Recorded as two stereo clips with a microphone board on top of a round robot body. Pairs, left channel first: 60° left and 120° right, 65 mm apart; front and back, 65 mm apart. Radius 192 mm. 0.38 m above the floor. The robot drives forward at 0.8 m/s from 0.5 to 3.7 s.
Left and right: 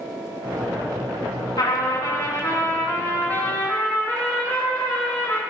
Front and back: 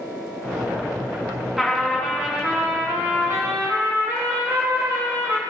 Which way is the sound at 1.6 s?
95° left.